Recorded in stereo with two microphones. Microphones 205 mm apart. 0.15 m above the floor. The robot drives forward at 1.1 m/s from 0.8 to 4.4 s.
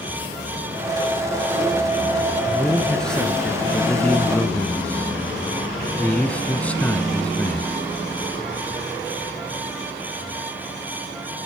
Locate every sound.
2.5 s a man speaking: 5° left (ahead or behind), 3 m